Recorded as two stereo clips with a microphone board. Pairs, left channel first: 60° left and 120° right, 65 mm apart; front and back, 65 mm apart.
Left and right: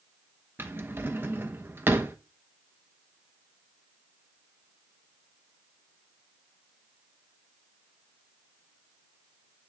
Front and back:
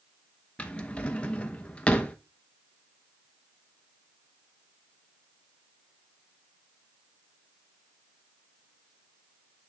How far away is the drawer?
About 0.7 m.